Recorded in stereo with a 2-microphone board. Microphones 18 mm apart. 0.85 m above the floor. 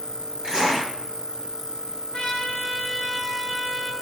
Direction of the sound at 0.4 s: 60° right (ahead or behind).